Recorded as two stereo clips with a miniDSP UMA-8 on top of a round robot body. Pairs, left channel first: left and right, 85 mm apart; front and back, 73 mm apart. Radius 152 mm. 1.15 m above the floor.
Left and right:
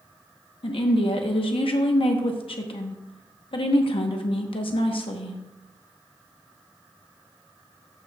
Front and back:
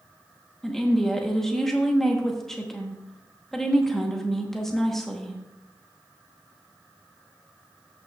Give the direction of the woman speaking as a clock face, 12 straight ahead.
9 o'clock.